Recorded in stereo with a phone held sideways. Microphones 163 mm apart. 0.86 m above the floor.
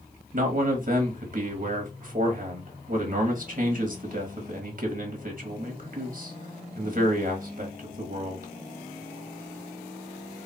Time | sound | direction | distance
0.3 | a man speaking | 50° right (ahead or behind) | 1.2 m